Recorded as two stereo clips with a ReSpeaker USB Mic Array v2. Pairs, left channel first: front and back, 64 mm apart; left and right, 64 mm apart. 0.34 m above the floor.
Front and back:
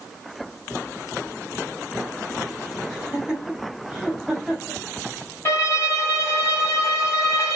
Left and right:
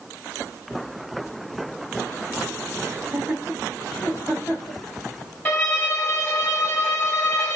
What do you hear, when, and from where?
2.9 s laughter: 115° right, 1.3 m; by 4.8 s 95° left, 1.7 m
5.5 s a violin: 40° left, 2 m